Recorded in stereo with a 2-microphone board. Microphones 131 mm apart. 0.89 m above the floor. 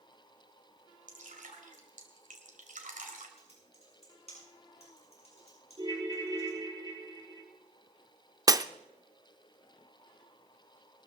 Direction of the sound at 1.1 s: 80° right.